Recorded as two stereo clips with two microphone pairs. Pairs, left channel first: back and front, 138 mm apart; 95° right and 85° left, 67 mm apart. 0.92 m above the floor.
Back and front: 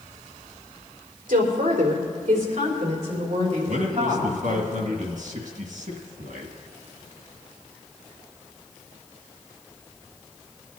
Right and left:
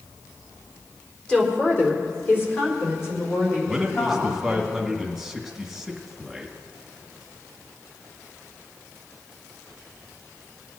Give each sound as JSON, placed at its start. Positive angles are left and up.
{"t": 1.3, "sound": "a woman speaking", "azimuth_deg": -20, "distance_m": 2.0}
{"t": 3.7, "sound": "a man speaking", "azimuth_deg": 0, "distance_m": 1.7}